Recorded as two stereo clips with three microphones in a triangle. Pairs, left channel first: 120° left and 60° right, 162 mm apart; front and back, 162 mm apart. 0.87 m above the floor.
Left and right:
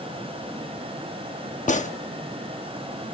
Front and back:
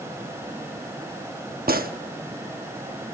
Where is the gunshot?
160° left, 0.9 m.